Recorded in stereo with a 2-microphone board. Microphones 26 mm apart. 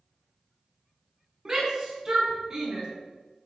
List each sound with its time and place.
1.4 s a shout: 25° right (ahead or behind), 5.5 m